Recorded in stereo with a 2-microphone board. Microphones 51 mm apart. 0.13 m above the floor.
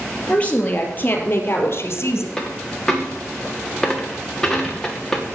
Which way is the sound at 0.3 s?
25° left (ahead or behind).